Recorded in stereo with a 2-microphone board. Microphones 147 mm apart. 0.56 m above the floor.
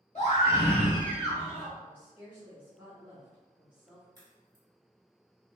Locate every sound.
0.1 s a scream: 55° left (ahead or behind), 1.7 m; by 1.7 s 15° left (ahead or behind), 1.9 m
1.8 s a woman speaking: 10° right (ahead or behind), 1.3 m
4.2 s a crack: 30° right (ahead or behind), 1.9 m